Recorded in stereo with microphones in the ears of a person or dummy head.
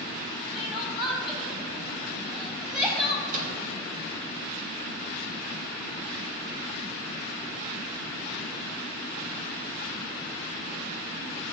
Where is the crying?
Centre (ahead or behind), 1.6 m.